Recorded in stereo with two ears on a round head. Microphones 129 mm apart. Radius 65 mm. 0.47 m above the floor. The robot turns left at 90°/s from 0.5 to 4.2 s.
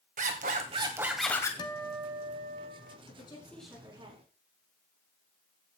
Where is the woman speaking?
50° left, 6 m; by 4.3 s 50° right, 6 m.